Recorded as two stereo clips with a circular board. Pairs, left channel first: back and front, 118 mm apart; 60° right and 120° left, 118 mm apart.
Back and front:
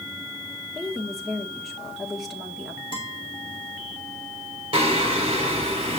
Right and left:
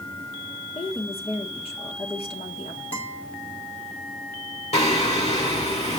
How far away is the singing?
About 3 m.